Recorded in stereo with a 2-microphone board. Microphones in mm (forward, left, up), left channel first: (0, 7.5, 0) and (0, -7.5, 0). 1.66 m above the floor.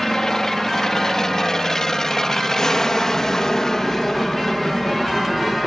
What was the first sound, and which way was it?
An aircraft, 45° left (ahead or behind).